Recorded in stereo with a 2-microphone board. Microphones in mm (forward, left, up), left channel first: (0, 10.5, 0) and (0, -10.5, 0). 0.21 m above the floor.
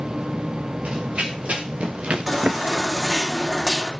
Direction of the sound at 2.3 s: 5° right (ahead or behind).